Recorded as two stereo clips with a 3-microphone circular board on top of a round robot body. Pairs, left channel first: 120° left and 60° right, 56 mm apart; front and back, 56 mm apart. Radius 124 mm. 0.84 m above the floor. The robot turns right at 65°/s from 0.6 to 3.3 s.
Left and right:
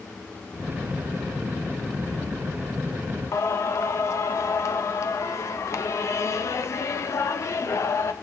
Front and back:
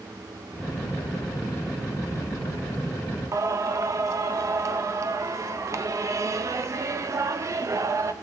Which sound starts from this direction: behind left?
Singing, at 3.3 s.